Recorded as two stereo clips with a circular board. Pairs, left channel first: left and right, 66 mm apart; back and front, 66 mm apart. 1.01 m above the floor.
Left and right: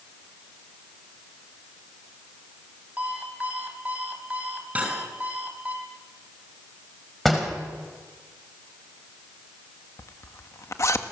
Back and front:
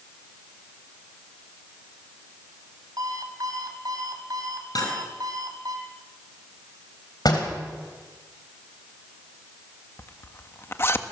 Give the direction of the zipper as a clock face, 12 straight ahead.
8 o'clock.